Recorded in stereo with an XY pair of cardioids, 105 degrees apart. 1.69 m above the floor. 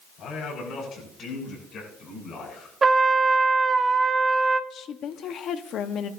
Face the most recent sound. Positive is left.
turn(degrees=65)